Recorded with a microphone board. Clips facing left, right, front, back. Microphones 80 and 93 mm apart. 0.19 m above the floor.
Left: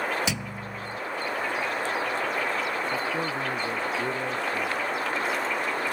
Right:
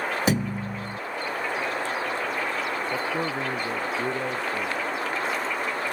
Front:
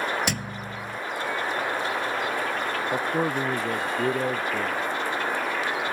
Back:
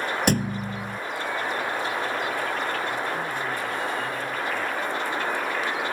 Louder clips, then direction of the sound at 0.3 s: Right 7 dB, back 7 dB; 135° right.